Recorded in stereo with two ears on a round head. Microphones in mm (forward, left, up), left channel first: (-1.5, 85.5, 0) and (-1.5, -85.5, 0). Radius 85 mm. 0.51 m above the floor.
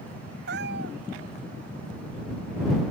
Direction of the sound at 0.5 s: 60° right (ahead or behind).